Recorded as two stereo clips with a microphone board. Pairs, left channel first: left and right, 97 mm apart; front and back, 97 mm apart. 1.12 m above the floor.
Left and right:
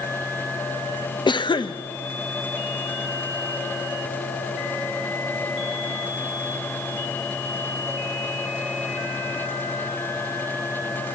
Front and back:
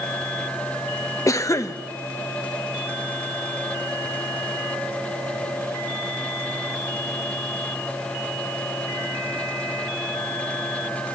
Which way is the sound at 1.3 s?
55° left.